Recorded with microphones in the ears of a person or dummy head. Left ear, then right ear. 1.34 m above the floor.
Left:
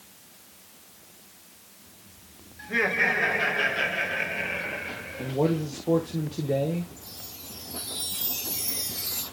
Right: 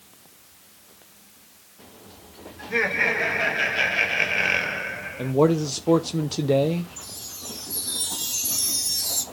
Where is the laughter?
5° right (ahead or behind), 2.5 m; by 5.3 s 45° right (ahead or behind), 1.0 m.